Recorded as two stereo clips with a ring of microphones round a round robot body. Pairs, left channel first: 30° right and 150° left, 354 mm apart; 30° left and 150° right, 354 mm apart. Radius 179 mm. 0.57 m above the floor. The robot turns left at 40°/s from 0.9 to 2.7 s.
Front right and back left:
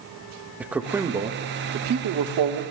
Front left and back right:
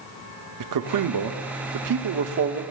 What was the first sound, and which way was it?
A man speaking, 125° right.